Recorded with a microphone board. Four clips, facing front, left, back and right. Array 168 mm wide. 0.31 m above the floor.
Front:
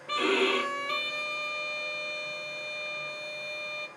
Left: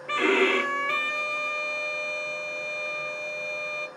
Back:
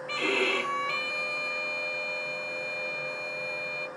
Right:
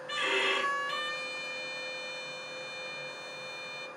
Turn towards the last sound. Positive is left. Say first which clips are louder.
# left 10 dB, front 3 dB
turn(degrees=75)